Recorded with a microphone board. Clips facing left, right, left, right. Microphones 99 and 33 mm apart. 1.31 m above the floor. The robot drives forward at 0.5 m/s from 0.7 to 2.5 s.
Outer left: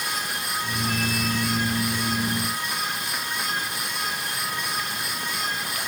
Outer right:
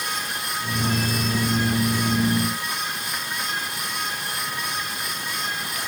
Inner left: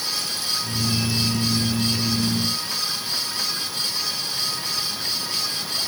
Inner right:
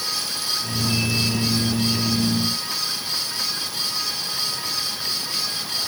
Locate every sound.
Only background noise.